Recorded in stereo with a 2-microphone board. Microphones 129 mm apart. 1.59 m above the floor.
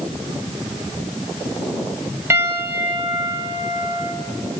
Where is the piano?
20° right (ahead or behind), 1.3 m.